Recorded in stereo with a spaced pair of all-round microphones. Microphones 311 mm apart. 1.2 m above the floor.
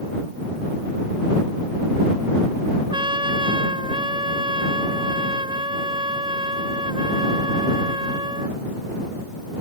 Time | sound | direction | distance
2.9 | a trumpet | 15° right (ahead or behind) | ?